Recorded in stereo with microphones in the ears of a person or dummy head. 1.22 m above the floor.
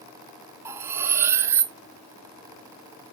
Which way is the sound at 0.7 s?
15° right (ahead or behind).